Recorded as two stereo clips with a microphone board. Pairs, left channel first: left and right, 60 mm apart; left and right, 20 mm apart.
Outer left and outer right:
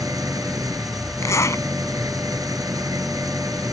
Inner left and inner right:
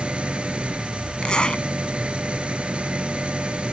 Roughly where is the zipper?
Left.